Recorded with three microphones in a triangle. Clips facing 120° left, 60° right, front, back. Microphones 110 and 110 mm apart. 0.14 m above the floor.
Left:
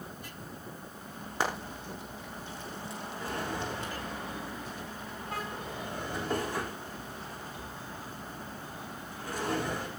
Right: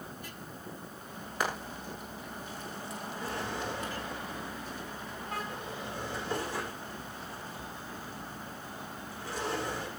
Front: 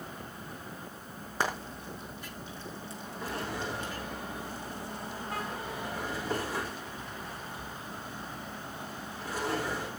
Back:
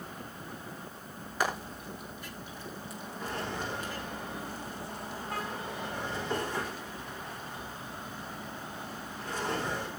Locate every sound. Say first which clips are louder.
1.4 s frying: left 1 dB, back 1 dB; 60° left, 5.5 m
3.2 s a drawer: left 1 dB, even; 80° left, 5 m